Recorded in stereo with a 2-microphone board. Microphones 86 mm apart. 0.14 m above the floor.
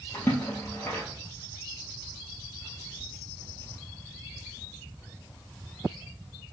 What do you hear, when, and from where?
0.1 s a splash: 25° left (ahead or behind), 1.2 m